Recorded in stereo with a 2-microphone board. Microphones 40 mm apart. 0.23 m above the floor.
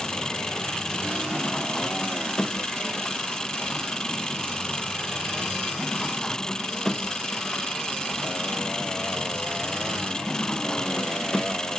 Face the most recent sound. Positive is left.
turn(degrees=15)  # may be behind; listen again after turning